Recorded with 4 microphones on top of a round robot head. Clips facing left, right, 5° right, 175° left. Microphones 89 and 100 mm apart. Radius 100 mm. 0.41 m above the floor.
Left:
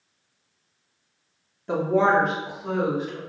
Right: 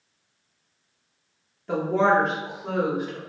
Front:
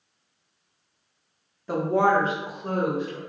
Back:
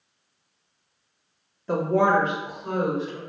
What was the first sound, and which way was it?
A woman speaking, 70° left.